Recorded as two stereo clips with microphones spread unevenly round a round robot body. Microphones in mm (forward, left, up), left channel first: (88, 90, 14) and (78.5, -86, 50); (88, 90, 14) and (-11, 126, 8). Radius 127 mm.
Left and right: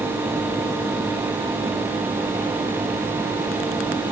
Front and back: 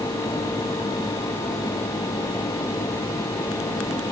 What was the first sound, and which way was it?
Only background noise.